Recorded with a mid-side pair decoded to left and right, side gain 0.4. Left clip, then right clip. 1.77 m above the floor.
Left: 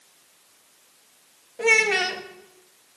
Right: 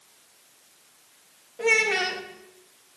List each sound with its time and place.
1.6 s a child speaking: 30° left, 2.5 m